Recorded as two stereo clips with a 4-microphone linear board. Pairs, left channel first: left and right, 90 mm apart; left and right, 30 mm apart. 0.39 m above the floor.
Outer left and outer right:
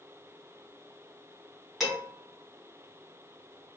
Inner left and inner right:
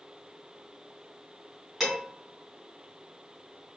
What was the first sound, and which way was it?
Dishes clattering, centre (ahead or behind).